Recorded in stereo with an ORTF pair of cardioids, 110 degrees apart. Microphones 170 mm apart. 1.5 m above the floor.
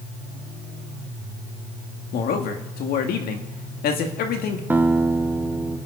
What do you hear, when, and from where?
2.1 s a man speaking: 65° left, 2 m
4.7 s a guitar: 10° right, 1.1 m